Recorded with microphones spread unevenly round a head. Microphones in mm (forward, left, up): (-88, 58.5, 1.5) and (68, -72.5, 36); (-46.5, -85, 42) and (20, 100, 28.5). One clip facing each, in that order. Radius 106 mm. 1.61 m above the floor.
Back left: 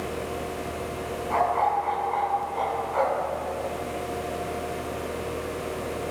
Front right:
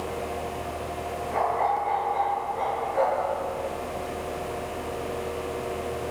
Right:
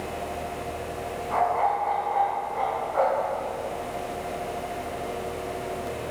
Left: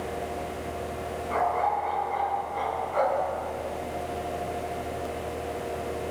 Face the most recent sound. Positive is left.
turn(degrees=115)